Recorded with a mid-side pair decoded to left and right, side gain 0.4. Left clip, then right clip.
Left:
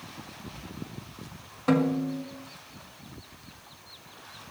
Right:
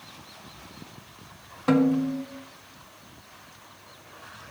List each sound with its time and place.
1.7 s a snare drum: 20° right, 1.7 m